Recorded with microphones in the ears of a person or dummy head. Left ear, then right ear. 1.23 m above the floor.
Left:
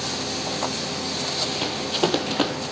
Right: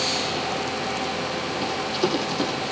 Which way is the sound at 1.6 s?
40° left (ahead or behind).